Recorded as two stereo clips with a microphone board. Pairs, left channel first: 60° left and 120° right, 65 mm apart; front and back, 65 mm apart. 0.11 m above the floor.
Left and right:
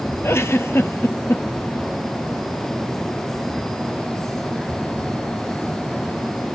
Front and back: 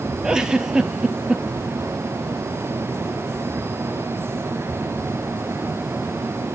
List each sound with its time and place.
0.2 s a giggle: 105° left, 0.9 m